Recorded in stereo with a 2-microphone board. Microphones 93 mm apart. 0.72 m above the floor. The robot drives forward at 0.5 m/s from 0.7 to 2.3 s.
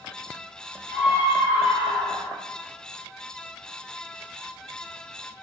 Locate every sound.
0.9 s a scream: 15° right (ahead or behind), 3.5 m